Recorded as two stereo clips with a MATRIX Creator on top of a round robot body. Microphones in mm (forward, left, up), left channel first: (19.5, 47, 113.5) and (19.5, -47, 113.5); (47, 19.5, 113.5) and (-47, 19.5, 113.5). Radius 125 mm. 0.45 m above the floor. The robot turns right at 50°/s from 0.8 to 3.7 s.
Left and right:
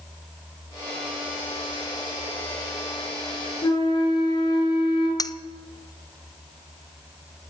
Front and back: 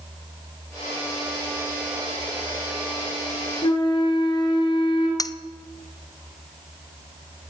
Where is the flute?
40° left, 6.5 m; by 5.1 s 45° left, 6.5 m.